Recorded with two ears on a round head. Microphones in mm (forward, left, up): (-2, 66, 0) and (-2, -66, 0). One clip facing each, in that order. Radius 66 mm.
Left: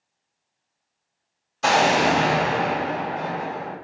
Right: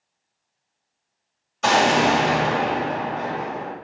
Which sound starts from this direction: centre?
An explosion, at 1.6 s.